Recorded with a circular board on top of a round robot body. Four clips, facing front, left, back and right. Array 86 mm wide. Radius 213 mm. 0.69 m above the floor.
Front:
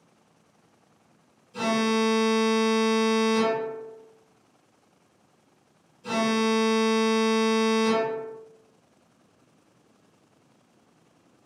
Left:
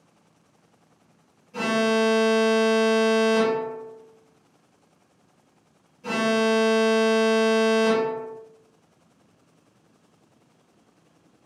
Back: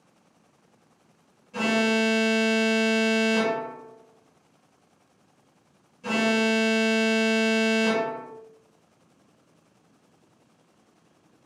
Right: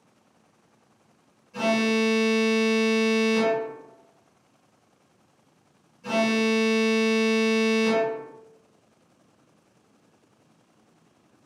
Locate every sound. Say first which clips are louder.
1.5 s an alarm: left 1 dB, back 1 dB; 170° left, 1.9 m